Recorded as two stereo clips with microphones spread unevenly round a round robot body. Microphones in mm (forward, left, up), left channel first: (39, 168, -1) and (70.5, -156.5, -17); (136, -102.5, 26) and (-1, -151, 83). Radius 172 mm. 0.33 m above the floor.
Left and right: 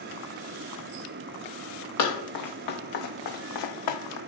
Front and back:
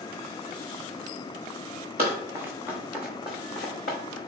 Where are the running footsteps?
135° left, 1.3 m; by 4.2 s 70° left, 0.9 m.